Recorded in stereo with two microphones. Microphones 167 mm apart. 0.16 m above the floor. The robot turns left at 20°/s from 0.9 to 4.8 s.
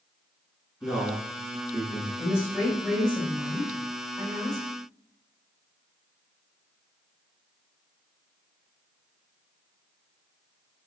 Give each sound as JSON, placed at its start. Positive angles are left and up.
{"t": 0.8, "sound": "a man speaking", "side_deg": 0, "distance_m": 1.3}
{"t": 2.2, "sound": "a woman speaking", "azimuth_deg": 25, "distance_m": 1.8}